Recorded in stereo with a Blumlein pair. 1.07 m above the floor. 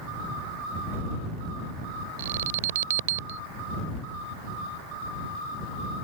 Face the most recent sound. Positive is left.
turn(degrees=-55)